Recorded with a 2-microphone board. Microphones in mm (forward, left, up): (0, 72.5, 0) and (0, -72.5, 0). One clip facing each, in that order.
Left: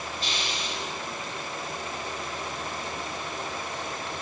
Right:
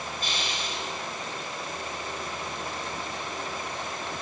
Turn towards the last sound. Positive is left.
turn(degrees=-45)  # may be behind; listen again after turning